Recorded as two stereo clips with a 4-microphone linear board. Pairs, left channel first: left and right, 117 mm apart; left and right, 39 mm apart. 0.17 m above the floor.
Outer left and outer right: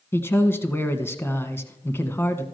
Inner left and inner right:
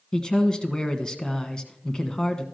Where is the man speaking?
20° left (ahead or behind), 1.2 m.